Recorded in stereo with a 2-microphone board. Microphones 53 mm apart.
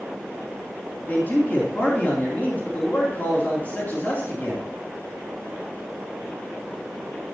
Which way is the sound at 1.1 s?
35° left (ahead or behind).